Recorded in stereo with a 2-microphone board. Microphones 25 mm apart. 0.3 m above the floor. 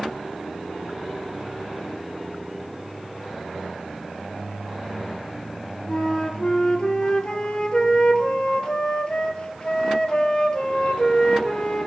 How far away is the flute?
About 0.9 m.